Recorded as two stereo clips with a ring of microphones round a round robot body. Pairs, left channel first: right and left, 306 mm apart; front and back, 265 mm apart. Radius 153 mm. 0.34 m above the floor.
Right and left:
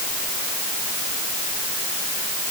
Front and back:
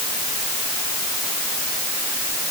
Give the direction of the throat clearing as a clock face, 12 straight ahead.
I don't hear throat clearing.